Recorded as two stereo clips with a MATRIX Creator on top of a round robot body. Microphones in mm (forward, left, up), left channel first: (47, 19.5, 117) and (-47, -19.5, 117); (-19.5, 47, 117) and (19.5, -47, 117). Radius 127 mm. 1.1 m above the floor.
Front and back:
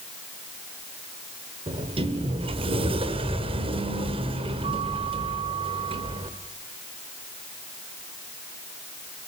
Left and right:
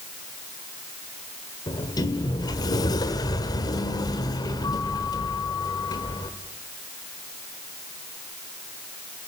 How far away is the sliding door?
About 1.6 m.